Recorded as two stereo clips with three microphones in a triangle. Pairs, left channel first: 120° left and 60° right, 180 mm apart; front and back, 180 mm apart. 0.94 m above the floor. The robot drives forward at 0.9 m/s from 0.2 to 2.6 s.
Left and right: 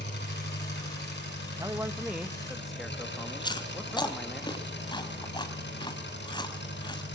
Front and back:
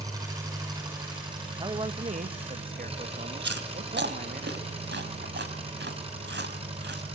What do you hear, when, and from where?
0.0 s an engine running: 110° left, 8.5 m; by 7.2 s 120° left, 9.5 m
1.6 s a man speaking: 120° right, 1.2 m; by 4.4 s 150° right, 1.8 m
3.4 s chewing: 175° right, 2.5 m